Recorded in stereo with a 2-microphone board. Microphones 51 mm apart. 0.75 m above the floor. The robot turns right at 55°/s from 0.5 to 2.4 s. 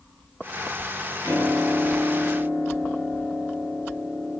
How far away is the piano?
About 5.5 m.